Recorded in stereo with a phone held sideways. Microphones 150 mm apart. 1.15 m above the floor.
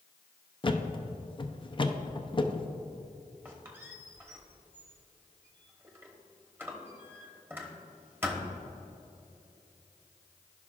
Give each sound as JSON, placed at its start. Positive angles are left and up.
{"t": 0.6, "sound": "a thud", "side_deg": 35, "distance_m": 0.5}
{"t": 3.5, "sound": "a squeak", "side_deg": -15, "distance_m": 1.0}